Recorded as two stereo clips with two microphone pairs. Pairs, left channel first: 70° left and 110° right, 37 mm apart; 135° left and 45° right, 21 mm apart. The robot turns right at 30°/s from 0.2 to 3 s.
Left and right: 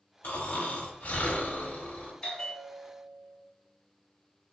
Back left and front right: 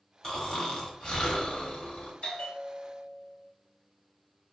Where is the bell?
135° left, 1.0 m; by 3.4 s 160° left, 1.0 m.